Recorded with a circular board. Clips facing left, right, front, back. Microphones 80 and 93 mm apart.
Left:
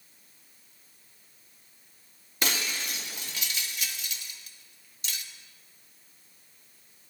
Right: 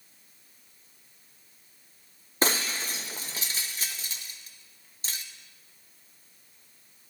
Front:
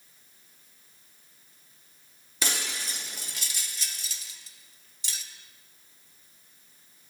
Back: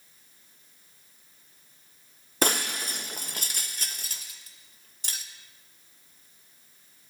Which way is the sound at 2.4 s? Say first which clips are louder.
Right 4 dB, back 7 dB; 140° right.